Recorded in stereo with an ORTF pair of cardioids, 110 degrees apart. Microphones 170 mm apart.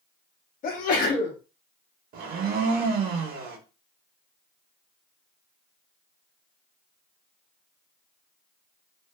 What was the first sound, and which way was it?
A sneeze, 55° left.